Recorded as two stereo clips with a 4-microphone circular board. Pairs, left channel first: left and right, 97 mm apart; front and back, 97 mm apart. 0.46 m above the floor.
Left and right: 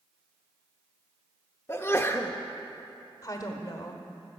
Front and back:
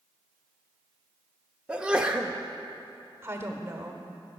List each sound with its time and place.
1.7 s a sneeze: 115° left, 0.7 m
3.2 s a woman speaking: 125° left, 1.1 m